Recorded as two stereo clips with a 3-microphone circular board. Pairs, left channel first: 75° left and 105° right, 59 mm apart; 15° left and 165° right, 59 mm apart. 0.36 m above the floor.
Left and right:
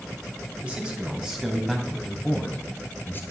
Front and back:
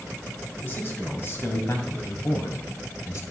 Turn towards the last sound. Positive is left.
turn(degrees=30)